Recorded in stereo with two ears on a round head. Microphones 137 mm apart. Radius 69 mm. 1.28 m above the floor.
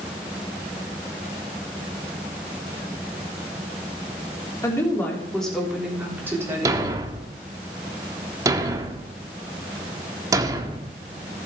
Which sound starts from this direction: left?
A woman speaking, at 4.6 s.